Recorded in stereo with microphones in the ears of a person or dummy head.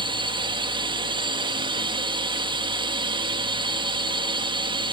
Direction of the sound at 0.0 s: 25° right (ahead or behind).